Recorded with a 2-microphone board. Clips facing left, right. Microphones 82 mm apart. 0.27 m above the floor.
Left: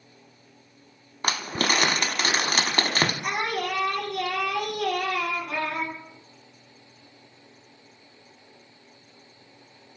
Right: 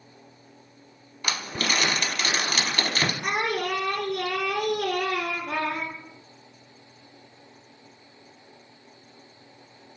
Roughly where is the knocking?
No knocking in this recording.